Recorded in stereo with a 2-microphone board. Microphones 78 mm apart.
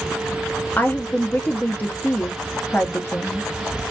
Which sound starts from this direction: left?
A woman speaking, at 0.8 s.